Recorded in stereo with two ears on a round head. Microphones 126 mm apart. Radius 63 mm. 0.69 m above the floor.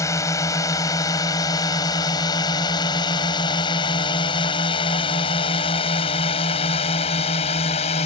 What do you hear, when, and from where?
0.0 s a drone: 20° left (ahead or behind); by 8.1 s 45° left (ahead or behind)